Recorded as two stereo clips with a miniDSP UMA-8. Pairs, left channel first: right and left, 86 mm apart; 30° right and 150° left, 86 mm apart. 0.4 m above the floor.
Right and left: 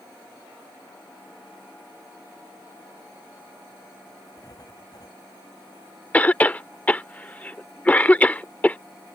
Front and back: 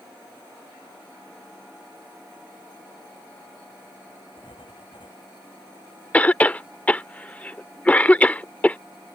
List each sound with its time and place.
4.4 s writing: 45° right
6.1 s a cough: 60° right